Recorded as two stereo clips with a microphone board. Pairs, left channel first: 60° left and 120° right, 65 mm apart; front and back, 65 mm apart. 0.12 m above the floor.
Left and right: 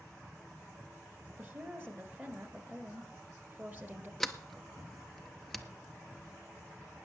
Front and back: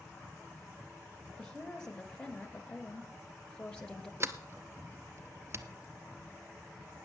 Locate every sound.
1.4 s a woman speaking: 75° right, 1.7 m
4.2 s a sliding door: 145° left, 0.7 m